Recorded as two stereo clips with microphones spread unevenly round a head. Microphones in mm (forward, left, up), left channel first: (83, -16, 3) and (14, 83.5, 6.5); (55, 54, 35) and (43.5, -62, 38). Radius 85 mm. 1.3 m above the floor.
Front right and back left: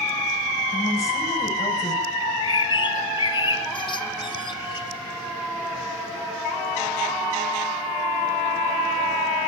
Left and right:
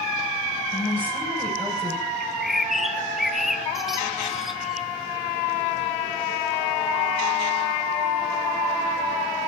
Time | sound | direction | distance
0.7 | a woman speaking | 10° left | 8.5 m
2.2 | a bird | 10° right | 2.5 m